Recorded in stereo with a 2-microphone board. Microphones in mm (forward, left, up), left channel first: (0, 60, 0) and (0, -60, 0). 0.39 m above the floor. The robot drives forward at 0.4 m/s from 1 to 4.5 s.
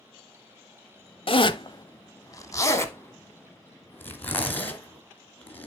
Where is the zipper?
55° left (ahead or behind), 0.6 m; by 5.7 s 15° left (ahead or behind), 1.7 m.